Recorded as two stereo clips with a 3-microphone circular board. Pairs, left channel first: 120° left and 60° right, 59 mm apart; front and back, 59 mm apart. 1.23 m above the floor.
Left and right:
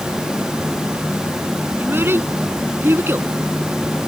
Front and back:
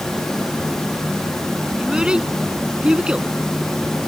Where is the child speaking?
105° right.